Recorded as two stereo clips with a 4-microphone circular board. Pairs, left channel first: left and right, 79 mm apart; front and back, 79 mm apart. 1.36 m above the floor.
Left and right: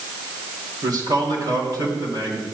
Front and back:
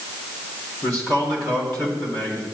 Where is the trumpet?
No trumpet in this recording.